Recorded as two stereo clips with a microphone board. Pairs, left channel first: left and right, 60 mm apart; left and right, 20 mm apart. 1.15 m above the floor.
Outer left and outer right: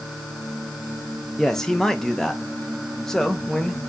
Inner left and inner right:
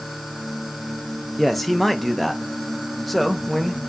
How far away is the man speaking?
About 0.6 m.